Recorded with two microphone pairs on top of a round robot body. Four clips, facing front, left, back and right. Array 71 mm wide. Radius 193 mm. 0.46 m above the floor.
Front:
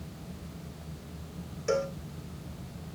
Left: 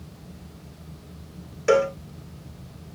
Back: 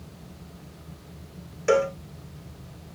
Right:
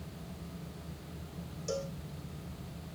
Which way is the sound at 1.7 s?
125° left.